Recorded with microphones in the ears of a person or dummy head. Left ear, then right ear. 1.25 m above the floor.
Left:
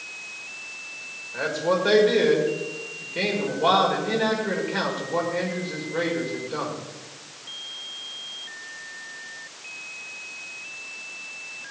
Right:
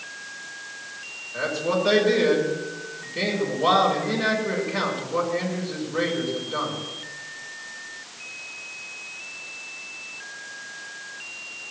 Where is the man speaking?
30° left (ahead or behind), 5.5 m.